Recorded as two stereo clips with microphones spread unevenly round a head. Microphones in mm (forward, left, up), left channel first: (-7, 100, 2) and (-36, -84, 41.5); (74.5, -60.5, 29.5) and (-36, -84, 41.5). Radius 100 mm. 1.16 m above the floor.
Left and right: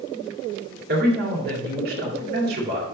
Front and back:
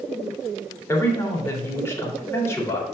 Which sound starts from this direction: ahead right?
A man speaking, at 0.9 s.